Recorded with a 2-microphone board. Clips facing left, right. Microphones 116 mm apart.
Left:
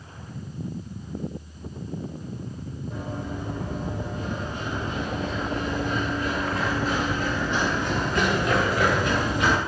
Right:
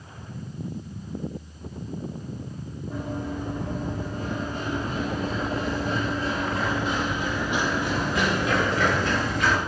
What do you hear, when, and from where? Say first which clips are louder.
2.9 s running footsteps: right 3 dB; 55° right (ahead or behind), 3.5 m; by 9.6 s 20° left (ahead or behind), 1.8 m